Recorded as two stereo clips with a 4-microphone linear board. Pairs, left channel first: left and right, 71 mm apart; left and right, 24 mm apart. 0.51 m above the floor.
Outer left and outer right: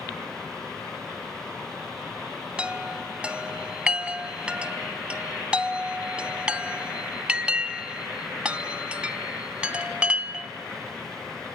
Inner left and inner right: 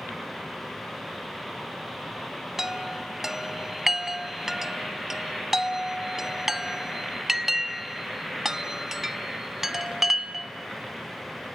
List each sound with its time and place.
2.6 s a chime: 15° right (ahead or behind), 0.6 m